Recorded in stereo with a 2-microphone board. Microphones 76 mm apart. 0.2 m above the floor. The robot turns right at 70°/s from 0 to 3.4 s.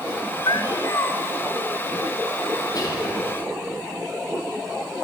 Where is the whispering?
55° left, 6 m; by 3.2 s 85° left, 6 m.